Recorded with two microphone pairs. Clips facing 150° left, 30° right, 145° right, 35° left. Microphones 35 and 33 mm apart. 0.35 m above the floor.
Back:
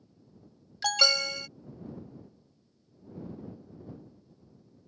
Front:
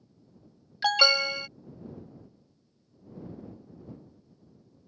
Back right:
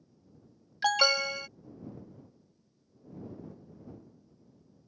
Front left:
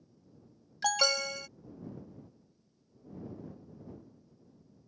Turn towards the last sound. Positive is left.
turn(degrees=-85)